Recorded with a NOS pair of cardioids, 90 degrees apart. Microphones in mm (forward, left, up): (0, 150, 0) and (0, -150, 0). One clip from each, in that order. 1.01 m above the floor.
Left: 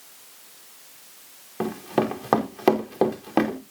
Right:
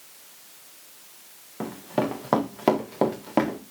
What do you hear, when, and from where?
1.6 s running footsteps: 25° left, 5 m